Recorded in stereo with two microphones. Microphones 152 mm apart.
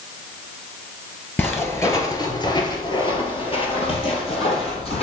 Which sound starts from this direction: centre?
Footsteps, at 1.4 s.